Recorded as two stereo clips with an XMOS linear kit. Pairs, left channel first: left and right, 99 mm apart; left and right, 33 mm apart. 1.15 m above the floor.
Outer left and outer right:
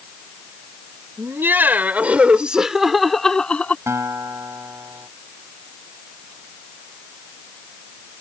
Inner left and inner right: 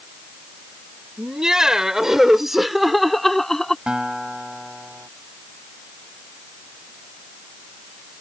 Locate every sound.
1.2 s laughter: 25° right (ahead or behind); by 3.8 s 15° left (ahead or behind)
3.9 s a guitar: 30° right (ahead or behind)